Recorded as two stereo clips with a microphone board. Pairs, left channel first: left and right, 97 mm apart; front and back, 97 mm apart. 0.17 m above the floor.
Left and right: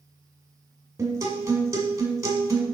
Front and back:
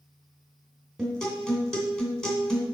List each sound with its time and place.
1.0 s a guitar: 80° right, 1.9 m